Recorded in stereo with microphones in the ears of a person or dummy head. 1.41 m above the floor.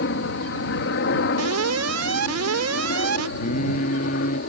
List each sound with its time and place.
0.0 s a helicopter: 60° left (ahead or behind); by 4.5 s 55° left (ahead or behind)
1.4 s an alarm: 85° right
3.4 s singing: 45° left (ahead or behind)